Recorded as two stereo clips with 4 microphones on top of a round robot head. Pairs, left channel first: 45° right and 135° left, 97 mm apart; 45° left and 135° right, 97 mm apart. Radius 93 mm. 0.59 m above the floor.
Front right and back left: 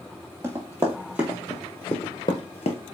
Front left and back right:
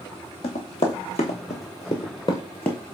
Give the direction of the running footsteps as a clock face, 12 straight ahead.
10 o'clock.